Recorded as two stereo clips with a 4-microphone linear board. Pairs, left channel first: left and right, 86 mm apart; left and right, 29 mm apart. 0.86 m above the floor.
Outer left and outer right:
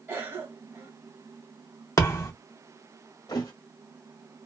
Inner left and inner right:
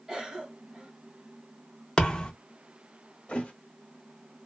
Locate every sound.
0.1 s a cough: 25° right (ahead or behind), 1.1 m
2.0 s a thud: 35° left (ahead or behind), 0.6 m
3.3 s a thud: 45° left (ahead or behind), 0.9 m